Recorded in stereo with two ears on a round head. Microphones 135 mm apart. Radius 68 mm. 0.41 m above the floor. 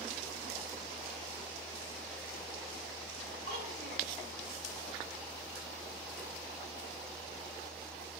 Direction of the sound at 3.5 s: 70° right (ahead or behind).